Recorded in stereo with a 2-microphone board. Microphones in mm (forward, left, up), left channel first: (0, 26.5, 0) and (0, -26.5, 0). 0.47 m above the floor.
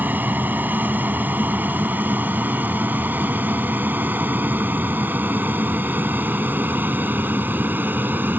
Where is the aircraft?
35° right (ahead or behind); by 8.4 s 40° right (ahead or behind).